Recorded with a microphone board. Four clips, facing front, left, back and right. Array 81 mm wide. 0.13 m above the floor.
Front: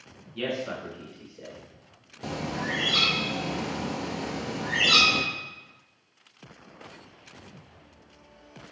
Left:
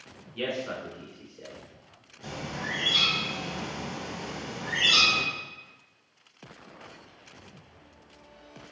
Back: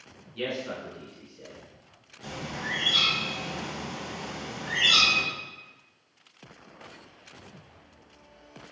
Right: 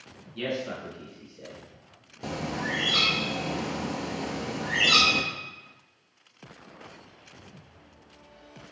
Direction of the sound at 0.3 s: 65° left.